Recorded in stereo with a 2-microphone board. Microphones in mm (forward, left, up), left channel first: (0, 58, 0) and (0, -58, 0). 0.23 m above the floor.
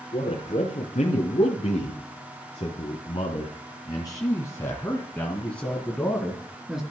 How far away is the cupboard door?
I don't hear a cupboard door.